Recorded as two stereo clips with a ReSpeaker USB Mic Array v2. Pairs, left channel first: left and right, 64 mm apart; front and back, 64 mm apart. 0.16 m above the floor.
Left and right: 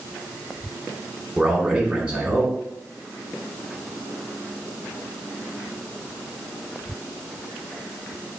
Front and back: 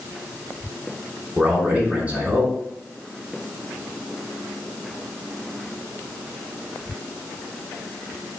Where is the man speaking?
145° right, 1.2 m.